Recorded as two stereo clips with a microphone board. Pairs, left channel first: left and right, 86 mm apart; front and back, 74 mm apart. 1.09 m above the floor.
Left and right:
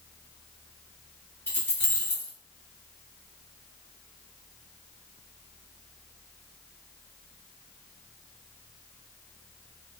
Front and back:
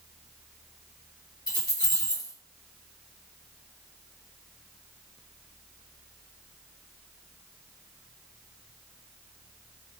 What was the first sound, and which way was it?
Keys jangling, 25° left.